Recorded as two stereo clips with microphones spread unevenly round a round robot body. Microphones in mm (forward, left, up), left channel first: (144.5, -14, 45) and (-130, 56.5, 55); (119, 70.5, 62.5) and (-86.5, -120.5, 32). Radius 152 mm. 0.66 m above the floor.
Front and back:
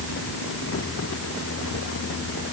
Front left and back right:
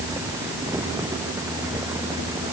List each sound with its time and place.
Only background noise.